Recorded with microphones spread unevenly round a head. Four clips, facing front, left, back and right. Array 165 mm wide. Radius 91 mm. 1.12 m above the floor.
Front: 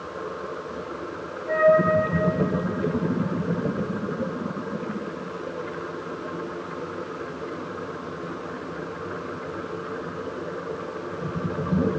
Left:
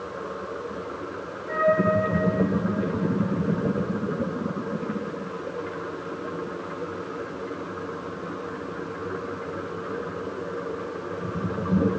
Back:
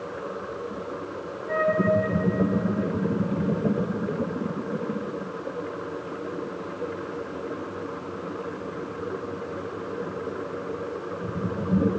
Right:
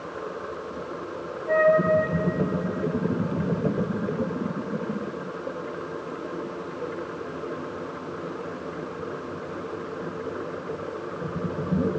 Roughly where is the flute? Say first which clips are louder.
Right 3 dB, front 6 dB; ahead right.